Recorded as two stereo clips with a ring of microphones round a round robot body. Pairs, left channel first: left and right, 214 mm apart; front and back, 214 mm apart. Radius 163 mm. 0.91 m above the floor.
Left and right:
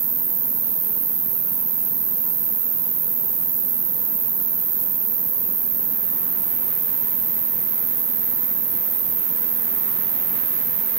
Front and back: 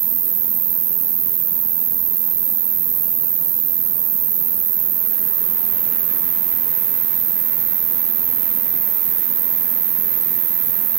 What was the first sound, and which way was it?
An insect, 140° right.